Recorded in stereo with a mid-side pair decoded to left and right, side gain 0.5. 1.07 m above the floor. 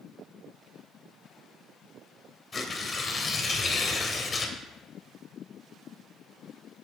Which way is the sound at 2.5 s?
35° left.